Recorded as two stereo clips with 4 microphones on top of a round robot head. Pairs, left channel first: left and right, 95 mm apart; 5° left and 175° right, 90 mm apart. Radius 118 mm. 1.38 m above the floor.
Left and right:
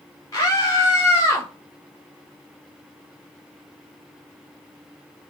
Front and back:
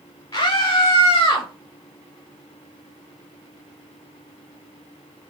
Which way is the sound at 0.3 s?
35° left.